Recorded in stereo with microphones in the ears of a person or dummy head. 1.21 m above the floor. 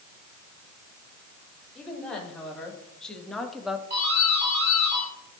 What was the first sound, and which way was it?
A woman speaking, 5° left (ahead or behind).